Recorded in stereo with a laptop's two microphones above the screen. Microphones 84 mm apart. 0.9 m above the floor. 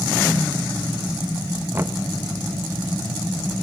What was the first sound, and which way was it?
Knocking, 25° right (ahead or behind).